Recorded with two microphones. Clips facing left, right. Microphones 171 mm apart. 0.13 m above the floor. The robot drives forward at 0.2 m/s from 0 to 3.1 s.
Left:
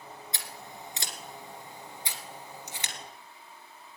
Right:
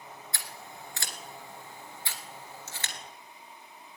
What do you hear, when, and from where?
0.3 s scissors: 20° left (ahead or behind), 1.6 m; by 3.0 s 15° left (ahead or behind), 2.0 m